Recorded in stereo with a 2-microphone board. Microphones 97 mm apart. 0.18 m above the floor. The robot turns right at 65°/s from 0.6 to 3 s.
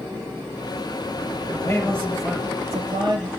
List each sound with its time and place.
1.5 s a man speaking: 140° left, 5.5 m; by 3.3 s 125° right, 5.5 m